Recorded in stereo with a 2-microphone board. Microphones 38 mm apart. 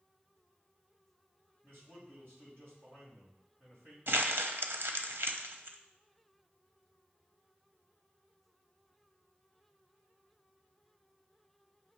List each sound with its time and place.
1.6 s a man speaking: 70° right (ahead or behind), 3.5 m
4.1 s crumpling: 80° right, 0.7 m